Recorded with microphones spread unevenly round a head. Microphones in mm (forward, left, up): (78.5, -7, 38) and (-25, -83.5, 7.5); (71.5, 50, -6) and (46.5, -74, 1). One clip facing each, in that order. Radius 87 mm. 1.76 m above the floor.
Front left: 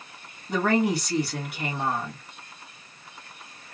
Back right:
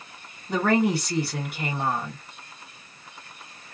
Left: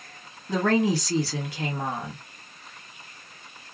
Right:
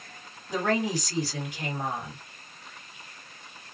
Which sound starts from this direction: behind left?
A woman speaking, at 0.5 s.